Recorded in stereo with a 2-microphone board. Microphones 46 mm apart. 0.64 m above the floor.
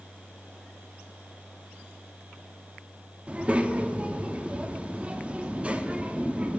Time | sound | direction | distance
3.3 | a child speaking | 30° right (ahead or behind) | 0.5 m